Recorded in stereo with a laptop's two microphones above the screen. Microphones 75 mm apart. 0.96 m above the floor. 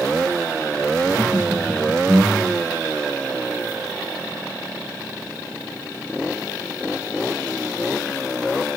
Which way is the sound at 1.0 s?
85° right.